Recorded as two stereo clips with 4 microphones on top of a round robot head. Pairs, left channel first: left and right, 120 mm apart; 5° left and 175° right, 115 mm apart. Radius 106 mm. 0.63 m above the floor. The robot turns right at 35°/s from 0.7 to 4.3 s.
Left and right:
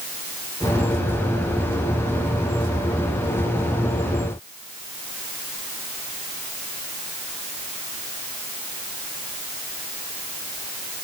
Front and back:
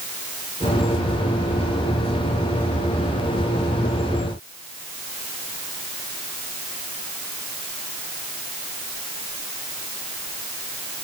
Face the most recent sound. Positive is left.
No sound to turn to.